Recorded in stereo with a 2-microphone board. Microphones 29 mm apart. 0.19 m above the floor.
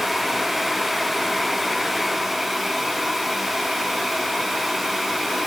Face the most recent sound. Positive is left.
No sound to turn to.